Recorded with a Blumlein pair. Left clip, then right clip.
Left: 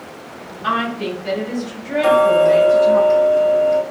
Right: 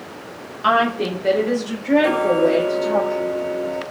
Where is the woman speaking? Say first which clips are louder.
Right 3 dB; 25° right, 1.3 m; by 3.0 s 30° right, 3 m.